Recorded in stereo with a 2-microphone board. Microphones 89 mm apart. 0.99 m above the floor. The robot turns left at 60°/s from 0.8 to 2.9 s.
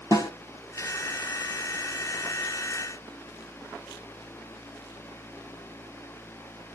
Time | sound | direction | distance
0.1 | a snare drum | 40° left (ahead or behind) | 1.0 m